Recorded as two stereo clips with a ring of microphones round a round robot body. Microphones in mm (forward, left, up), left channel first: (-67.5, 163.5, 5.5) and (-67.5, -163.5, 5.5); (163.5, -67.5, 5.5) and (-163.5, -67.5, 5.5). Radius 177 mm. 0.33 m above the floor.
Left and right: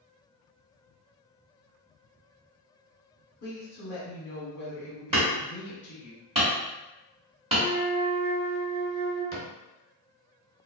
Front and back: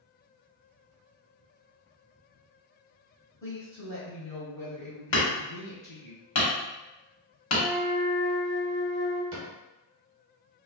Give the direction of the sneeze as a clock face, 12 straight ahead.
No sneeze in this recording.